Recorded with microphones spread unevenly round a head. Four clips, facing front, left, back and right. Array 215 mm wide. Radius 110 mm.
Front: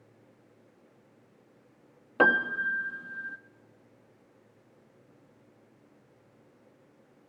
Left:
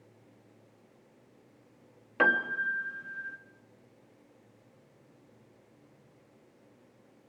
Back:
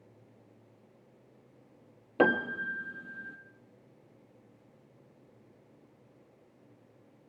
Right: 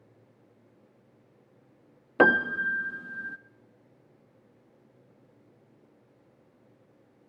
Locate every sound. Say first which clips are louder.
2.2 s a piano: right 5 dB, front 2 dB; 115° right, 1.1 m